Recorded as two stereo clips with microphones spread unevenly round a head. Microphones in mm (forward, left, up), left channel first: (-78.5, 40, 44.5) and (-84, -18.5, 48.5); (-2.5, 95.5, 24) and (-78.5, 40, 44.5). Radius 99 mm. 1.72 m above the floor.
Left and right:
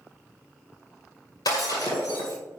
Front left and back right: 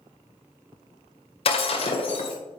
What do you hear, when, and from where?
1.4 s breaking glass: 50° left, 2 m